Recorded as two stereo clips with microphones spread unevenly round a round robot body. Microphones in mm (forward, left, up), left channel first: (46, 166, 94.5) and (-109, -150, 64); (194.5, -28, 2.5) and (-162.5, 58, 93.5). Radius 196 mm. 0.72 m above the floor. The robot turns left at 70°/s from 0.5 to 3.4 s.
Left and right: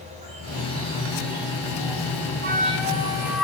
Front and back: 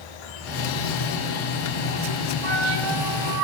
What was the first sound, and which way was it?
An insect, 40° right.